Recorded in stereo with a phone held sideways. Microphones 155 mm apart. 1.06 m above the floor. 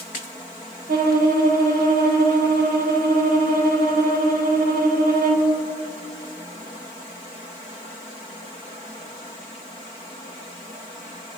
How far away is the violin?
About 1.4 m.